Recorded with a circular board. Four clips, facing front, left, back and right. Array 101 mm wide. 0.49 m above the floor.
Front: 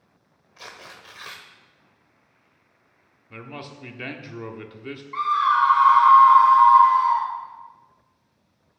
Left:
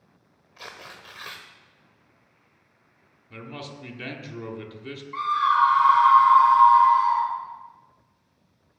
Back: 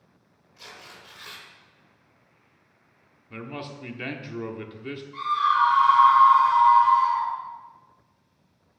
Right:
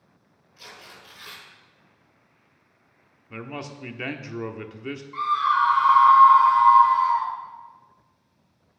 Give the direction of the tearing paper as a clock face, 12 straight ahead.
10 o'clock.